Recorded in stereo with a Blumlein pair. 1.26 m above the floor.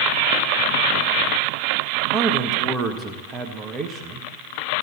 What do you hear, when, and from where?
2.1 s a man speaking: 20° right, 1.4 m